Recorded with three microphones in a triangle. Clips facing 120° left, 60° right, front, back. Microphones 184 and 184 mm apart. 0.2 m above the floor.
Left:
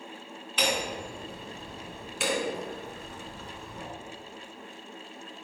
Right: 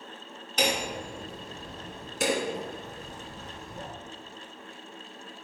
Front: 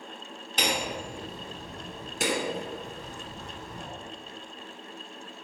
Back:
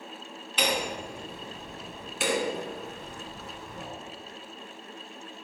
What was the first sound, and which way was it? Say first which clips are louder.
Hammering: right 1 dB, back 1 dB; 30° right.